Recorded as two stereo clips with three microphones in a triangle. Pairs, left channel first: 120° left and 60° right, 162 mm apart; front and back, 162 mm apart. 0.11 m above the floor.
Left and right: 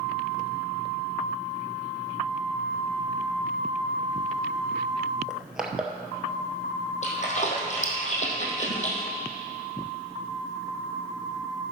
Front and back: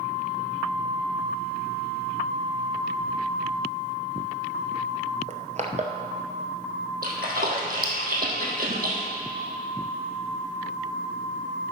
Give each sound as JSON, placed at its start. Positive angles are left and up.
{"t": 5.3, "sound": "crushing", "azimuth_deg": -145, "distance_m": 0.9}
{"t": 7.0, "sound": "a splash", "azimuth_deg": 160, "distance_m": 1.7}